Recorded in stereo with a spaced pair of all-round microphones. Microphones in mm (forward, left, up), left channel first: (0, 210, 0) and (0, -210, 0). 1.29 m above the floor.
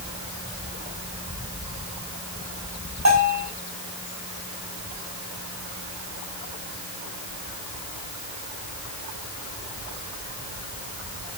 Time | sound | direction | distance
3.0 | a bell | 45° right (ahead or behind) | 7.5 m